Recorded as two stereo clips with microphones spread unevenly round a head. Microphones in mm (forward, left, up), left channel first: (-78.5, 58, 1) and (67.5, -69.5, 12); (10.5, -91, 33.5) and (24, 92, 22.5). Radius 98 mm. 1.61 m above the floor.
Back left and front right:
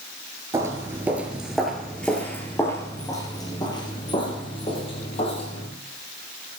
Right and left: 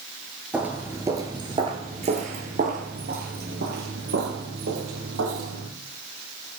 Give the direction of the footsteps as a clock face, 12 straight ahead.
12 o'clock.